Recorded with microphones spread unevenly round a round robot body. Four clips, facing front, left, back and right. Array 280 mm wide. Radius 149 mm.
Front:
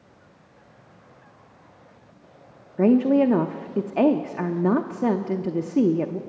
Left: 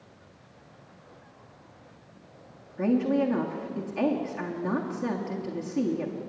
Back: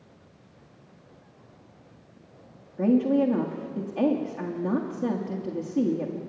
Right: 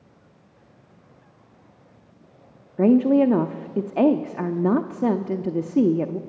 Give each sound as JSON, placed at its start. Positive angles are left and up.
{"t": 2.8, "sound": "a woman speaking", "azimuth_deg": -55, "distance_m": 0.7}